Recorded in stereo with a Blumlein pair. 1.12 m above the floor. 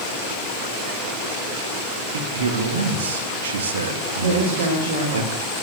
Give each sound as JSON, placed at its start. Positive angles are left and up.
{"t": 2.1, "sound": "a man speaking", "azimuth_deg": -65, "distance_m": 2.0}
{"t": 4.2, "sound": "a woman speaking", "azimuth_deg": -55, "distance_m": 3.5}